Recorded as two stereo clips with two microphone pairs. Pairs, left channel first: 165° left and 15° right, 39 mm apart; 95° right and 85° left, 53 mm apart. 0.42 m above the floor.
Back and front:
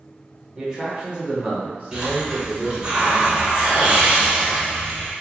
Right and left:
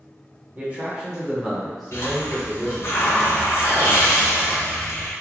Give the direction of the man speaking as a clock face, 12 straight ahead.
10 o'clock.